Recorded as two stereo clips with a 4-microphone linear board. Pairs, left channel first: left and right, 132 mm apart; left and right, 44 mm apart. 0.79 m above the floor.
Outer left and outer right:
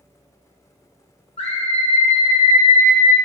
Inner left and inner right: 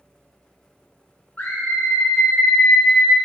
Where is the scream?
55° left (ahead or behind), 0.9 m; by 3.1 s 70° left (ahead or behind), 1.7 m.